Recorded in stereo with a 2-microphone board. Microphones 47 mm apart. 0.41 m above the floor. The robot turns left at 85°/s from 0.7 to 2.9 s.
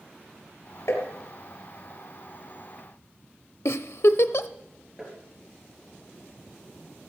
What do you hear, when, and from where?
0.9 s tapping: 85° left, 3.5 m; by 1.1 s 70° left (ahead or behind), 3.5 m
3.6 s a giggle: 70° left (ahead or behind), 0.6 m
5.0 s tapping: 5° right (ahead or behind), 4.5 m